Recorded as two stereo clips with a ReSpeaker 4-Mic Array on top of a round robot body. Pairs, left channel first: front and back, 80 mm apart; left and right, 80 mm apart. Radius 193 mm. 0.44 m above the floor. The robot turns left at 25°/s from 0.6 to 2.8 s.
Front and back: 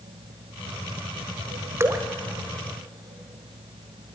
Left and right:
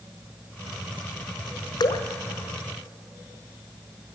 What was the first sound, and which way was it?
Dripping, 120° left.